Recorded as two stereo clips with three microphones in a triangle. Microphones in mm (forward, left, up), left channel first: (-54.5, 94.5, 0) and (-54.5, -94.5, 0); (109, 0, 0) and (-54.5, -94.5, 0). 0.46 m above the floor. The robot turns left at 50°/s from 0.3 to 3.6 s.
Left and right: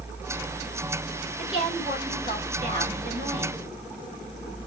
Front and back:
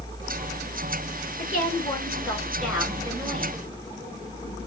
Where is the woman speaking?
Straight ahead, 2.5 m; by 3.6 s 105° right, 2.5 m.